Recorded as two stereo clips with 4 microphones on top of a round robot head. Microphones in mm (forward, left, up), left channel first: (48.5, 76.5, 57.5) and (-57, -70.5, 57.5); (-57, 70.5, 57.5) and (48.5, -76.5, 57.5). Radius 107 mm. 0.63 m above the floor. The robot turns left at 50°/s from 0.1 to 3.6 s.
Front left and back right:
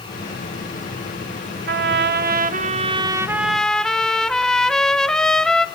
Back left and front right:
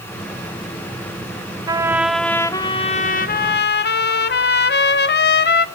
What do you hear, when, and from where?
1.7 s a trumpet: 120° right, 1.2 m; by 5.7 s 140° left, 1.2 m